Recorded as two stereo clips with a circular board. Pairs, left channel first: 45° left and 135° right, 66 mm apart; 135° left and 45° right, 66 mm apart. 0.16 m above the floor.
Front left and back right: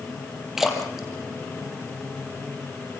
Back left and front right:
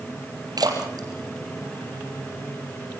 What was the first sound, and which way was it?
A splash, 50° right.